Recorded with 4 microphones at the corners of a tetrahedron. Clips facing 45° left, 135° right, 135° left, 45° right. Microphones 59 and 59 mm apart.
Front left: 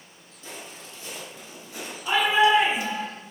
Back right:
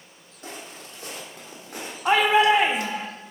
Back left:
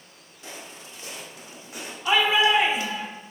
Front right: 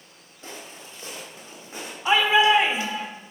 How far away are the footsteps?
About 3 m.